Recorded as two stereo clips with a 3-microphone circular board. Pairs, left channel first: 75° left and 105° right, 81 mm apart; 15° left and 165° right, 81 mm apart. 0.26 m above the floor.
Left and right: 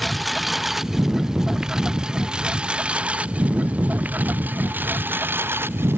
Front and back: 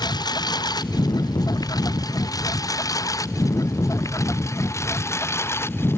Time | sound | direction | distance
0.0 | a lawn mower | 15° right | ?